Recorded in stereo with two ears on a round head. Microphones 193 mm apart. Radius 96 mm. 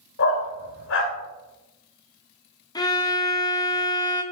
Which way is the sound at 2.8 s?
15° left (ahead or behind).